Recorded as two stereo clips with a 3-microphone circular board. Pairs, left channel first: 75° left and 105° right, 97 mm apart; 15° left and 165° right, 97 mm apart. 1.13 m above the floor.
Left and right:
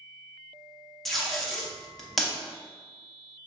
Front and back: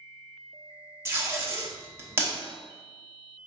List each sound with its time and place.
1.1 s tape being pulled: 160° left, 0.7 m